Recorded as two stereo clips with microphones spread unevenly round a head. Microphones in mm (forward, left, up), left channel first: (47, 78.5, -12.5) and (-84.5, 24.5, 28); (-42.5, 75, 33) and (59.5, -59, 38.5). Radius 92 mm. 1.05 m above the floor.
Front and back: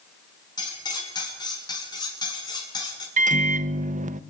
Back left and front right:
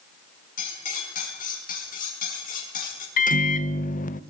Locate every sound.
0.6 s cutlery clinking: 85° left, 6.5 m
3.2 s a microwave: 165° left, 0.9 m